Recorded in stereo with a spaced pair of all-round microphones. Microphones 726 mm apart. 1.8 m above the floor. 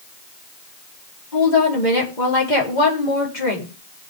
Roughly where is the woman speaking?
Left.